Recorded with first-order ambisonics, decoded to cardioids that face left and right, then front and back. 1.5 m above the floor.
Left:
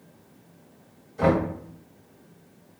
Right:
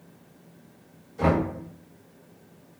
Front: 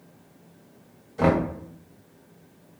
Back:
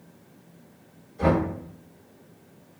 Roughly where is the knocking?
Ahead.